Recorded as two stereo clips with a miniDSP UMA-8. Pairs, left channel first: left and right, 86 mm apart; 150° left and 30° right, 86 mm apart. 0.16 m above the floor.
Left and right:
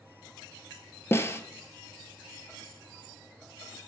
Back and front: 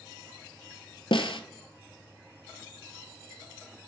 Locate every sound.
1.1 s a snare drum: 150° left, 0.6 m